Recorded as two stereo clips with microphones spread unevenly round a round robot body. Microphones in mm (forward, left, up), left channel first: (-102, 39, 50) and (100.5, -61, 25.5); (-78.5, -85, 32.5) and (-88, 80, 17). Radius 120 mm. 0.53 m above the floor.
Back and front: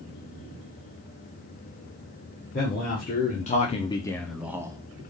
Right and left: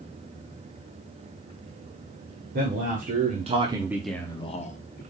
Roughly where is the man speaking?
Left.